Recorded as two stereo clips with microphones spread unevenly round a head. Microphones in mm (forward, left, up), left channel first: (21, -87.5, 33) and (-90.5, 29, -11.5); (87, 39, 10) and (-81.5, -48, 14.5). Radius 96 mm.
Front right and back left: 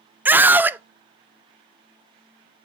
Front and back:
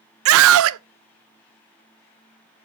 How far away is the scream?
About 0.5 m.